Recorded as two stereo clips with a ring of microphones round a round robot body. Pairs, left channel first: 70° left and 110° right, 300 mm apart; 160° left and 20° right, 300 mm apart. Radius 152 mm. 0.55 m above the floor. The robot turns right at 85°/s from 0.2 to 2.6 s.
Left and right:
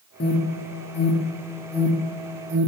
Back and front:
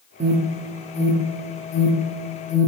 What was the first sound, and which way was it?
An alarm, 30° left.